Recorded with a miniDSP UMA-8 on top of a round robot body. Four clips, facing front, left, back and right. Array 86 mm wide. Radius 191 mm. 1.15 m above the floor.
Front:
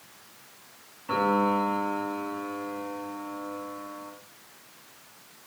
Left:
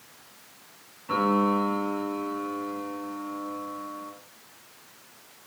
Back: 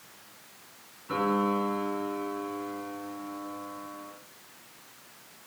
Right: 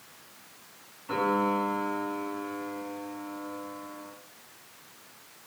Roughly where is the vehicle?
I don't hear a vehicle.